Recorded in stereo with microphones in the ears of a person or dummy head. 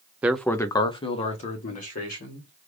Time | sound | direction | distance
0.2 | a man speaking | 20° right (ahead or behind) | 0.5 m